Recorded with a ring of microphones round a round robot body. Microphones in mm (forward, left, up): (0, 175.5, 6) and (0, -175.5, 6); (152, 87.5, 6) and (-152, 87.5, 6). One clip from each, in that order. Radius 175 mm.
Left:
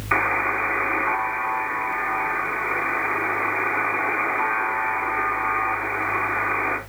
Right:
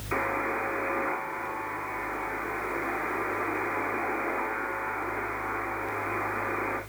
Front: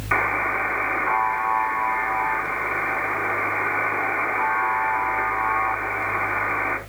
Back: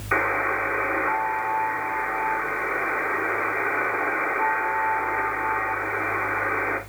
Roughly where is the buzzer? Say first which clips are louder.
Left 8 dB, front 1 dB; ahead left.